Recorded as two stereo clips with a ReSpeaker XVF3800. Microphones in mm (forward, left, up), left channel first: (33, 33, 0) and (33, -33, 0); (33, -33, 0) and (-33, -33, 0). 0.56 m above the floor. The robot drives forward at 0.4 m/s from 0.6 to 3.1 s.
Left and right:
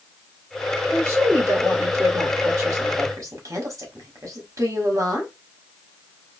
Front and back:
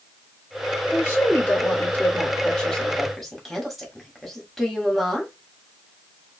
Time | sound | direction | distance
0.9 | a woman speaking | 50° right | 1.5 m